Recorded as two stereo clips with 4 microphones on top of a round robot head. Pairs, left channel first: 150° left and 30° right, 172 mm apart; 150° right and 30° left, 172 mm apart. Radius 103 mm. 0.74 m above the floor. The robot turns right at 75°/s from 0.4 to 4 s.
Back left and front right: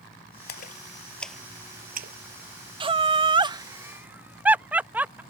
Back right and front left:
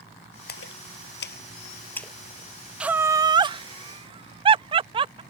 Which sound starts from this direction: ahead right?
Laughter, at 2.8 s.